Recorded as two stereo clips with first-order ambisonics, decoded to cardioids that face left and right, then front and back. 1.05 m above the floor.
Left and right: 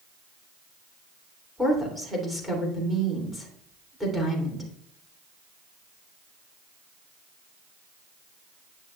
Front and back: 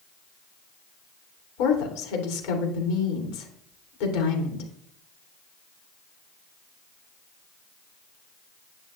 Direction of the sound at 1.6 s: 5° right.